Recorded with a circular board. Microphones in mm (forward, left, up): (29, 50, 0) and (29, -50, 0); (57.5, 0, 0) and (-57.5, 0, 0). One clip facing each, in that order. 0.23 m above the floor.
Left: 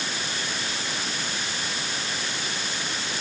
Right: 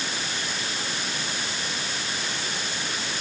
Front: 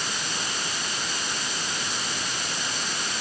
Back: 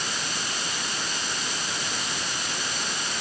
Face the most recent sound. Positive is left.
No sound to turn to.